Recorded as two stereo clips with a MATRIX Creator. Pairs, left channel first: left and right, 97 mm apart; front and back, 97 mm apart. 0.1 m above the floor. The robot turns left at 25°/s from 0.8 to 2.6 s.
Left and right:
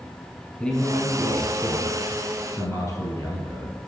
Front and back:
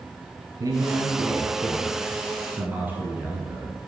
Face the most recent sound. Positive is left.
turn(degrees=115)